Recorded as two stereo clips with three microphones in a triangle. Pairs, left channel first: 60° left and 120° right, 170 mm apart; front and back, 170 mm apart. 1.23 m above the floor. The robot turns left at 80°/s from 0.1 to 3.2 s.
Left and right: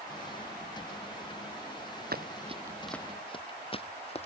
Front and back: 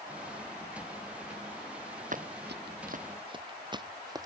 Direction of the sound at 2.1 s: 140° right.